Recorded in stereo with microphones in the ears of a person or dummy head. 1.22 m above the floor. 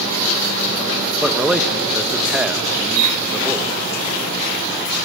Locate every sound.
1.2 s a man speaking: centre (ahead or behind), 1.1 m